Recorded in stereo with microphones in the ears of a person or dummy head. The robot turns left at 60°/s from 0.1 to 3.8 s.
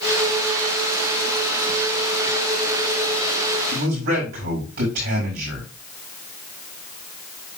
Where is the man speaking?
70° right (ahead or behind), 4.5 m; by 5.7 s 60° right (ahead or behind), 4.5 m.